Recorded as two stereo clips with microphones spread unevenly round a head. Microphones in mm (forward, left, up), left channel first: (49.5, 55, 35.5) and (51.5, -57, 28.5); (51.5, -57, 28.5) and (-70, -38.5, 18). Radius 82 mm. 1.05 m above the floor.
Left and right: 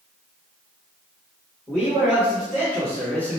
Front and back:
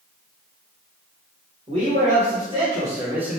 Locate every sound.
1.7 s a man speaking: 175° left, 1.4 m; by 3.4 s 135° left, 0.7 m